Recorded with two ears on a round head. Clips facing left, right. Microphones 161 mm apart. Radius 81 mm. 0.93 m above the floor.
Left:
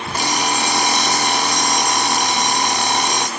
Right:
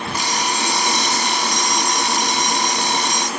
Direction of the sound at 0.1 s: 45° left (ahead or behind).